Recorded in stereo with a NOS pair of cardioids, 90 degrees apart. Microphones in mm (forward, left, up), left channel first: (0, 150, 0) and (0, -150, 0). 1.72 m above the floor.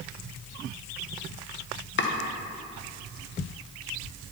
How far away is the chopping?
About 1.6 m.